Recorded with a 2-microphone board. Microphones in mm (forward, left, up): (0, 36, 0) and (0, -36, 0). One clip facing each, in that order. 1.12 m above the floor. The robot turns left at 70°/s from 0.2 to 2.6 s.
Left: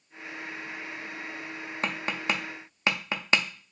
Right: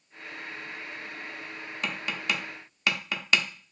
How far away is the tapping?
About 0.6 m.